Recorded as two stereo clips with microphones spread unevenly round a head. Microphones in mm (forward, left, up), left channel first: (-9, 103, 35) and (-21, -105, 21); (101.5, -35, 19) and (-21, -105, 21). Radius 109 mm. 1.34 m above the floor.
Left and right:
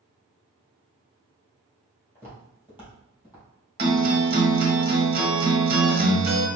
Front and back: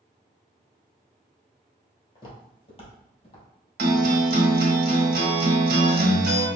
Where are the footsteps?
15° right, 1.8 m; by 3.5 s 10° right, 3 m.